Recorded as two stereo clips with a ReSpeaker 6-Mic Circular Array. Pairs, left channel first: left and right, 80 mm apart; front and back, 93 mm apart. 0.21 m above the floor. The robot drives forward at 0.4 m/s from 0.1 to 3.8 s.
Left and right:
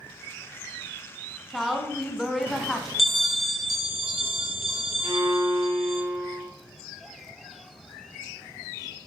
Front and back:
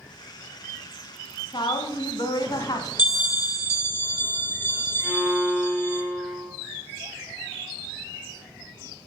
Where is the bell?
5° right, 1.6 m.